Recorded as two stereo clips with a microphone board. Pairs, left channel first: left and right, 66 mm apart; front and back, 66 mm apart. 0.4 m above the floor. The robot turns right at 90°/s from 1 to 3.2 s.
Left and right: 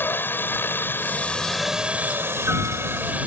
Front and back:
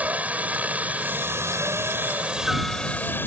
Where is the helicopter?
125° left; by 3.3 s 35° right.